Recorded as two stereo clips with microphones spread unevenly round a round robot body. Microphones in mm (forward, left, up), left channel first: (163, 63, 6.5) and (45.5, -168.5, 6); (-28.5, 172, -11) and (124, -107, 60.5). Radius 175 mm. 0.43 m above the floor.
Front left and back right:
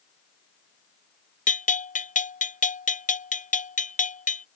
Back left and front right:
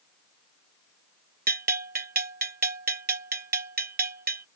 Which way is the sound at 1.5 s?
Straight ahead.